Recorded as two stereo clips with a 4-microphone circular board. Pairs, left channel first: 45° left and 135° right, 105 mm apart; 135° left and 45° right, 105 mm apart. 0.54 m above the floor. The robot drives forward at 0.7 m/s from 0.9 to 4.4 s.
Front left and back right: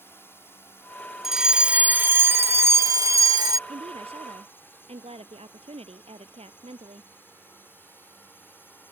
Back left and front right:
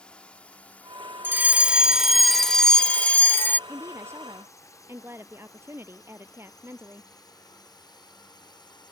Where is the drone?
70° left; by 8.9 s 110° left.